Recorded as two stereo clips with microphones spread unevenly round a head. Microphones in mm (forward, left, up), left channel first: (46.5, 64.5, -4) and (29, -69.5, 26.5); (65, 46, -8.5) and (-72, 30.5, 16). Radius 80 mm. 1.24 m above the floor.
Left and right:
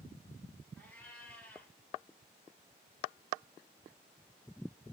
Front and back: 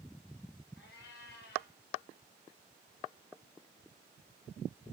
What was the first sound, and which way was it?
A cat meowing, 5° right.